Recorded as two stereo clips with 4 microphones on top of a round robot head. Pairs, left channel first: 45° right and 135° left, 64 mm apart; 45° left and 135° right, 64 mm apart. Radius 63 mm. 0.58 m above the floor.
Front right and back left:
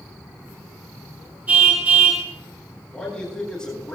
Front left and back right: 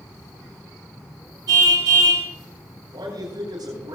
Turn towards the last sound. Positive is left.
turn(degrees=-120)